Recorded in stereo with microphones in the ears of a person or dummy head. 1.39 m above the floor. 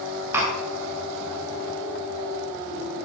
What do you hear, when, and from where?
0.3 s tapping: 15° right (ahead or behind), 6 m